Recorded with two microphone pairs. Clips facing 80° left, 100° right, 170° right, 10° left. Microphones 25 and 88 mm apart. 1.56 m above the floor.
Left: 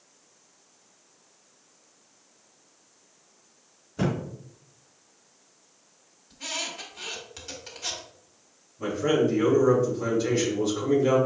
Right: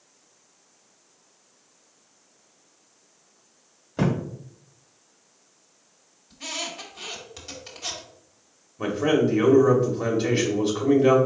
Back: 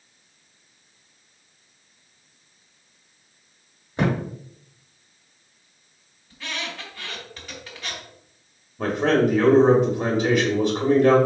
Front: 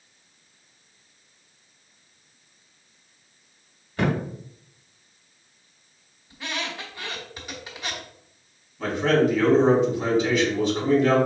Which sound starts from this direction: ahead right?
A squeak, at 6.3 s.